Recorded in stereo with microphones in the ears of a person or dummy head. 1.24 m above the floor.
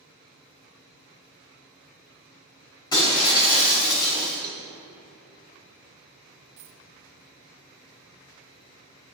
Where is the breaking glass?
25° left (ahead or behind), 3 m.